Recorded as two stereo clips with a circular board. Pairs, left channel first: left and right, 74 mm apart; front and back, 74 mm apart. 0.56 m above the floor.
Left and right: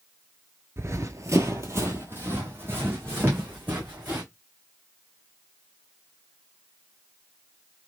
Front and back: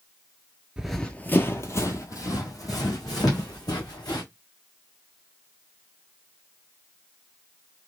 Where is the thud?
30° right, 1.6 m.